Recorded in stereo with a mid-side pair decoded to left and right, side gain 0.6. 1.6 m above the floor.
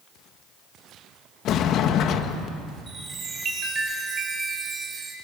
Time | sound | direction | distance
1.4 | a sliding door | 60° left | 1.6 m
2.9 | a chime | 35° right | 5 m